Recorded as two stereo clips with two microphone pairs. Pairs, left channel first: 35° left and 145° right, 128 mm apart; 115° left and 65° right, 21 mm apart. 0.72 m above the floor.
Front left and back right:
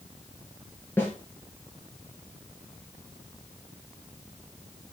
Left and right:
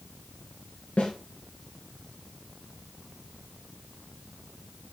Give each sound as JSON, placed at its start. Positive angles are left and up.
{"t": 1.0, "sound": "a snare drum", "azimuth_deg": 110, "distance_m": 3.0}